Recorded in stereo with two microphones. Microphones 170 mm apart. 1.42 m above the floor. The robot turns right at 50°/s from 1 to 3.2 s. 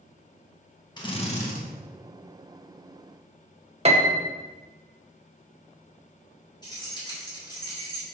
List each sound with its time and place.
1.0 s a drill: 25° left, 1.3 m; by 1.6 s 60° left, 1.3 m
3.9 s a piano: 40° right (ahead or behind), 0.8 m
6.6 s keys jangling: 25° left (ahead or behind), 3 m